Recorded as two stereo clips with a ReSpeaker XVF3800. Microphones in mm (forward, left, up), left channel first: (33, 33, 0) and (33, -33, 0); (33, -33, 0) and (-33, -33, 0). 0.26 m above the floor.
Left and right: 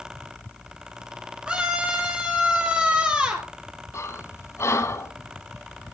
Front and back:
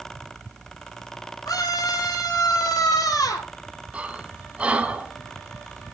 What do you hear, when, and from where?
1.4 s a scream: 15° right, 7.5 m
3.9 s breathing: 115° left, 2 m